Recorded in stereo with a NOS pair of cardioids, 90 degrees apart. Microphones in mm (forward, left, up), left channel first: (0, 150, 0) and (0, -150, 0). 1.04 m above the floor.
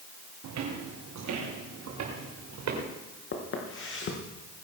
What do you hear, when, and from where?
0.4 s footsteps: 70° right, 4 m; by 2.8 s 60° right, 6 m
3.3 s footsteps: 45° left, 5 m